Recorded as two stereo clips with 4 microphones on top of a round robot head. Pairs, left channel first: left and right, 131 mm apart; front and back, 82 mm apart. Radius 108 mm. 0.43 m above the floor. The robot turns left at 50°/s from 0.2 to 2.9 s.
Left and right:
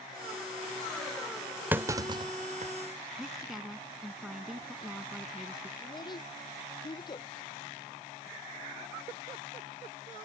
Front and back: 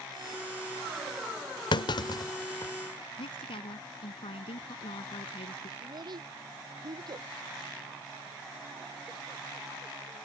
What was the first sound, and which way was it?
A clunk, 15° right.